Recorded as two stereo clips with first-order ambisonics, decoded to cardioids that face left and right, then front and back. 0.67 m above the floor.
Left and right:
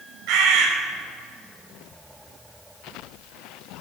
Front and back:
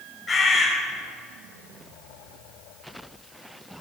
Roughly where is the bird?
Right.